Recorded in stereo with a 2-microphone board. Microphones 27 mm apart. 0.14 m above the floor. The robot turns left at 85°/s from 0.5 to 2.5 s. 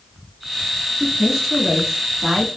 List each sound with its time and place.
1.0 s a woman speaking: 5° right (ahead or behind), 1.1 m; by 2.5 s 10° right (ahead or behind), 1.1 m